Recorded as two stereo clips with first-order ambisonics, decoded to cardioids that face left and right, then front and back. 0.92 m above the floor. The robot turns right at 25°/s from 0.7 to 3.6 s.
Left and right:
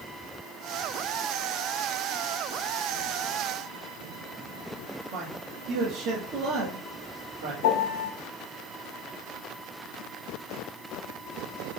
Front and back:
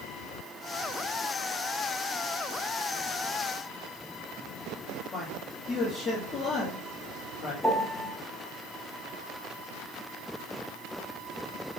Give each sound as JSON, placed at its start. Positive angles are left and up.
{"t": 5.1, "sound": "a man speaking", "azimuth_deg": -65, "distance_m": 1.2}
{"t": 7.6, "sound": "a piano", "azimuth_deg": 85, "distance_m": 0.6}